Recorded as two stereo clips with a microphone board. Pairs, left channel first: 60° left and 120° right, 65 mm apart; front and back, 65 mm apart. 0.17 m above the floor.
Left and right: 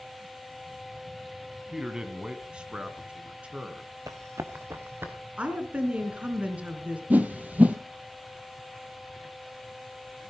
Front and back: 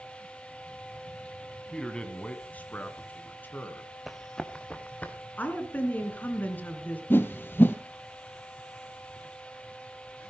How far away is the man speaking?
About 1.7 m.